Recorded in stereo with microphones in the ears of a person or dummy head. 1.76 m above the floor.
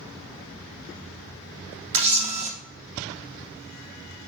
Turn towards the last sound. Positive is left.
turn(degrees=-30)  # may be behind; listen again after turning